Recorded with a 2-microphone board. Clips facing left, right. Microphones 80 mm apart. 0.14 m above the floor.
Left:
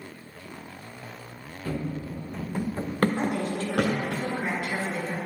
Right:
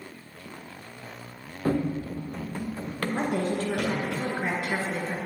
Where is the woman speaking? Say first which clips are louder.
Right 1 dB; 40° right (ahead or behind), 1.6 m.